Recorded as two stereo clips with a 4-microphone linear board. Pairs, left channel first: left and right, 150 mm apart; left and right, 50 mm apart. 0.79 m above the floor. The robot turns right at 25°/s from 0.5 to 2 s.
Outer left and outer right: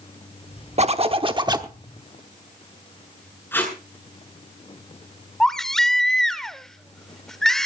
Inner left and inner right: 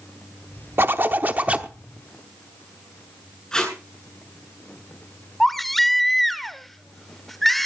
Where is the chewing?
No chewing in this recording.